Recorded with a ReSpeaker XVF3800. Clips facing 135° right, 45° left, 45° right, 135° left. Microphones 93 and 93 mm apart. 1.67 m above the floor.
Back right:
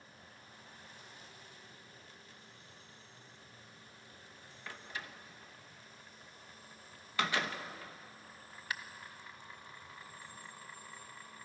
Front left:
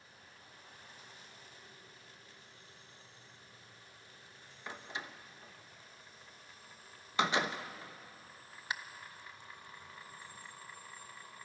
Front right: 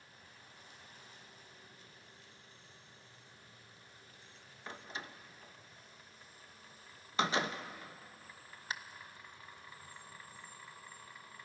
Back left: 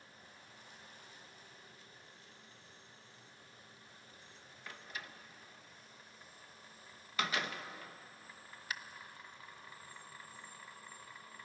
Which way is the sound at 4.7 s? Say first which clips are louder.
Front left 2 dB, front right 3 dB; 5° right.